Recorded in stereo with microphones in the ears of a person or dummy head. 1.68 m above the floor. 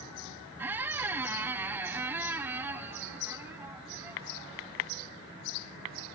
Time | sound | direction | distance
0.6 | a squeak | 15° right (ahead or behind) | 0.6 m